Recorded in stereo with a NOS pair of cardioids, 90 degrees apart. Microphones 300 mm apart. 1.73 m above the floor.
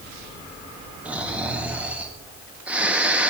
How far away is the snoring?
About 1.7 m.